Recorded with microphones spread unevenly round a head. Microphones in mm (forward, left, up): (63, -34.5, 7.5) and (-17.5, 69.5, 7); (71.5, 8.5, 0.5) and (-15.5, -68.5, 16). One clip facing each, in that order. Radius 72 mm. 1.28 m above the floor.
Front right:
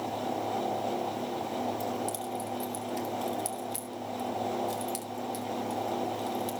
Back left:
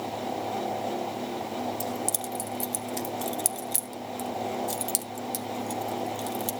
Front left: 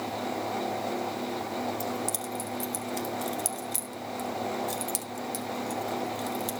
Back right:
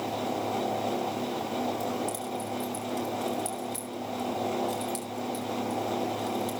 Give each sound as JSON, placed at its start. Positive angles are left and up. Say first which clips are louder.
{"t": 1.8, "sound": "keys jangling", "louder": "back left 1 dB, back right 1 dB", "azimuth_deg": 100, "distance_m": 1.1}